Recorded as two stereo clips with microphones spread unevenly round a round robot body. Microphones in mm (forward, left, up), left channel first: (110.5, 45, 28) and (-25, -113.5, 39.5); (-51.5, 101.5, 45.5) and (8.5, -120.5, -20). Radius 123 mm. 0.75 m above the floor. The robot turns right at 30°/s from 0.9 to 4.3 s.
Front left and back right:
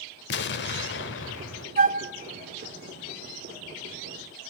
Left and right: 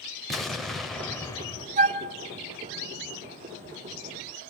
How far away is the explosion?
About 0.8 m.